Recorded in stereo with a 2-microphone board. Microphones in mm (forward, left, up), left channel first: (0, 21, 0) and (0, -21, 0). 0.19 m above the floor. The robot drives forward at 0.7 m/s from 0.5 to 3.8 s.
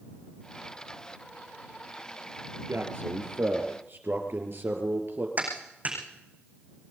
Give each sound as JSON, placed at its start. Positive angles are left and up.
{"t": 2.7, "sound": "a man speaking", "side_deg": -60, "distance_m": 4.0}
{"t": 5.4, "sound": "a clap", "side_deg": -35, "distance_m": 9.0}